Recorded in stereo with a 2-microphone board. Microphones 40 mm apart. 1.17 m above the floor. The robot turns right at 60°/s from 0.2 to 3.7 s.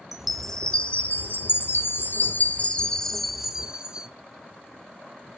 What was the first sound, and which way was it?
A chime, 5° right.